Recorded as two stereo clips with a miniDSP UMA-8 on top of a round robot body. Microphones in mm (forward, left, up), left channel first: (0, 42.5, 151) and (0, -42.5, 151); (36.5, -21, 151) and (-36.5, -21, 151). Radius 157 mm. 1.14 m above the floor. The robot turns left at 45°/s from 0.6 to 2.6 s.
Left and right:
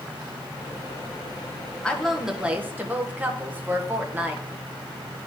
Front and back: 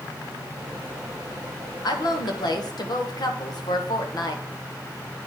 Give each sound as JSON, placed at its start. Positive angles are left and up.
{"t": 1.8, "sound": "a woman speaking", "azimuth_deg": 15, "distance_m": 1.7}